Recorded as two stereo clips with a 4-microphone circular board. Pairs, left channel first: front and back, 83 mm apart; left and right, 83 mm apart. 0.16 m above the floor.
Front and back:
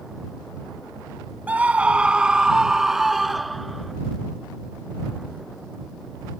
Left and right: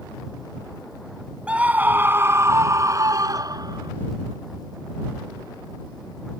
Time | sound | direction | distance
1.5 | a scream | 140° right | ?